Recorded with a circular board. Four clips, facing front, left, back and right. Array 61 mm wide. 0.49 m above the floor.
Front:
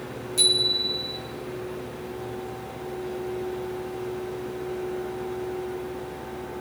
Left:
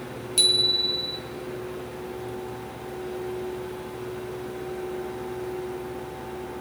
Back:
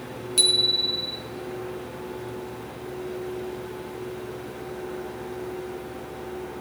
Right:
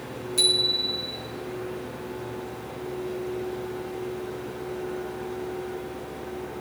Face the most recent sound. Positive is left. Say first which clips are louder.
# left 1 dB, even
turn(degrees=140)